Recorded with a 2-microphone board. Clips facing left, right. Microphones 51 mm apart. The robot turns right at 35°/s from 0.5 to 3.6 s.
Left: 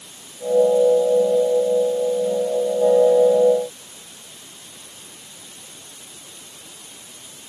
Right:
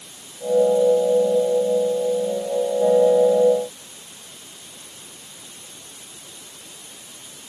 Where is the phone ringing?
I don't hear a phone ringing.